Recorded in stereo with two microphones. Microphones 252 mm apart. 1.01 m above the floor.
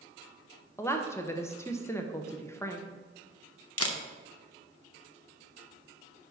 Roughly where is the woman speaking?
Centre.